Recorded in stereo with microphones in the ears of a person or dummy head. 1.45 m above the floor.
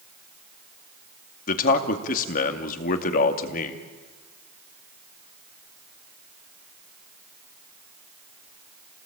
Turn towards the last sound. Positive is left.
turn(degrees=50)  # may be behind; listen again after turning